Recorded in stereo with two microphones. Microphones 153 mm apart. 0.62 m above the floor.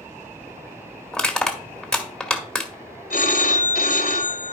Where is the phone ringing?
70° left (ahead or behind), 1.6 m.